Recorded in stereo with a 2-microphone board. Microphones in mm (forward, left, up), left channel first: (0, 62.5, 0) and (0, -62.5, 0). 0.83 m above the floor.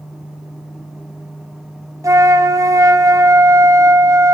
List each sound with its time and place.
2.0 s a flute: 25° right (ahead or behind), 0.6 m